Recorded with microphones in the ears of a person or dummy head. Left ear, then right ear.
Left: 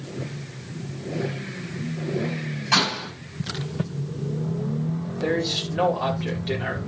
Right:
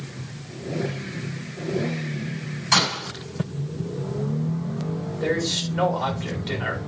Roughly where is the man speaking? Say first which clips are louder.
Even; centre.